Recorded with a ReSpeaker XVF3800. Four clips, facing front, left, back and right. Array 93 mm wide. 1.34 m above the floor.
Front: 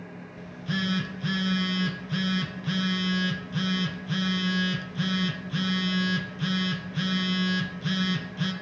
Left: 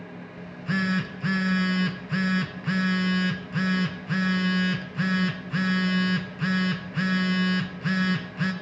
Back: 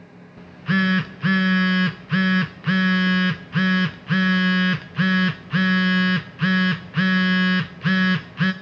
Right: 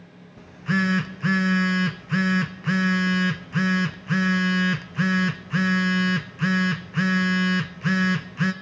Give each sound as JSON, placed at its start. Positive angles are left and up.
{"t": 0.4, "sound": "a phone buzzing", "azimuth_deg": -160, "distance_m": 0.5}